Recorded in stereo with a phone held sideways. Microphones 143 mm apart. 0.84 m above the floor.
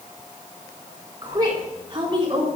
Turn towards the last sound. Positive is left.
turn(degrees=-40)  # may be behind; listen again after turning